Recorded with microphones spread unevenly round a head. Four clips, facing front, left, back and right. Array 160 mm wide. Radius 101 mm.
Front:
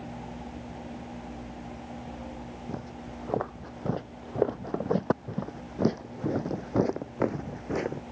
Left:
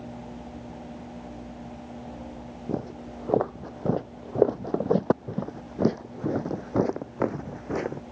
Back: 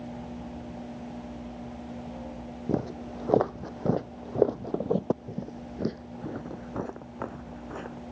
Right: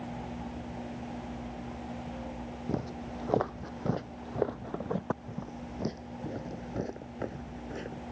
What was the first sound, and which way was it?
Footsteps, 150° left.